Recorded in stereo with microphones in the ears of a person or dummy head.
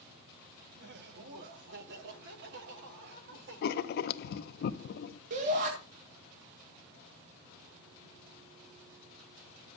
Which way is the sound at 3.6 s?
60° left (ahead or behind).